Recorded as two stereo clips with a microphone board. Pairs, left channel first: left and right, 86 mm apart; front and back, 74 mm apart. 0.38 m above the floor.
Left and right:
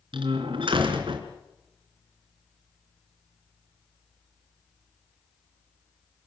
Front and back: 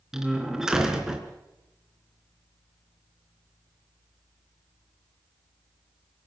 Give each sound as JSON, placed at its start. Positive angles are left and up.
{"t": 0.1, "sound": "a door slam", "azimuth_deg": -95, "distance_m": 3.5}